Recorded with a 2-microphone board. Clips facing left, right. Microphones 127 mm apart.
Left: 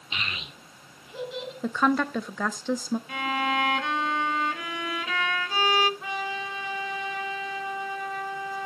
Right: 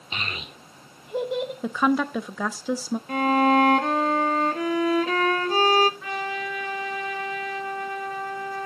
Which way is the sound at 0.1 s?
40° right (ahead or behind).